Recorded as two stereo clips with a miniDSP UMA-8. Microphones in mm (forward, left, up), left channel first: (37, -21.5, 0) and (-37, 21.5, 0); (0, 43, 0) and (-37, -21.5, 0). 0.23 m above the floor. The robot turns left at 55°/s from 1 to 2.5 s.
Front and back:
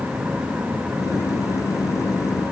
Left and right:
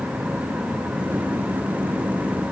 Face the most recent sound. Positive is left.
No sound to turn to.